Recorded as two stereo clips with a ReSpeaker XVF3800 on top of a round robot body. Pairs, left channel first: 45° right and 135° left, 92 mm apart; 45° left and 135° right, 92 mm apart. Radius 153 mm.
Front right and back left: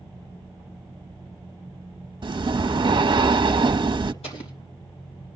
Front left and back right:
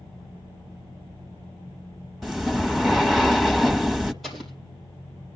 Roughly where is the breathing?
Behind left.